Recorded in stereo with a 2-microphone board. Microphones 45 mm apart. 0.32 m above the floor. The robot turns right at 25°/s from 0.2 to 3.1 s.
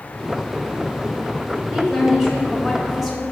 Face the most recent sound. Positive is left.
turn(degrees=0)  # may be behind; listen again after turning